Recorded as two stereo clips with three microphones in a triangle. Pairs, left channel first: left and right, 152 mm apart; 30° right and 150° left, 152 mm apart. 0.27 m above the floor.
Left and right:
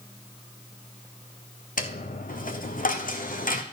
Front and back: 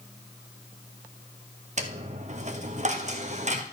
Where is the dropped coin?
115° left, 1.1 m.